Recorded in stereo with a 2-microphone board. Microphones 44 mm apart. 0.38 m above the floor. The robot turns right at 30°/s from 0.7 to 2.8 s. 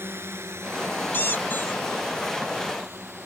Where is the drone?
65° right (ahead or behind); by 3.3 s 70° right (ahead or behind).